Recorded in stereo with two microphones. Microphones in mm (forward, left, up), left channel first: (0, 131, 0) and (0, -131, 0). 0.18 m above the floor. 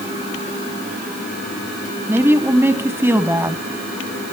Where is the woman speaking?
10° right (ahead or behind), 1.2 m.